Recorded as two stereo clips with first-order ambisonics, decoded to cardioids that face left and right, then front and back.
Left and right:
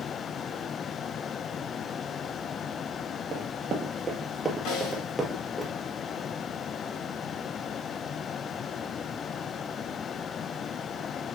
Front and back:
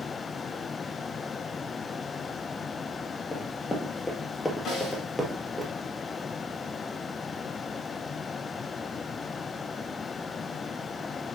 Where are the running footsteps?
65° right, 2.0 m; by 5.7 s 120° left, 1.7 m.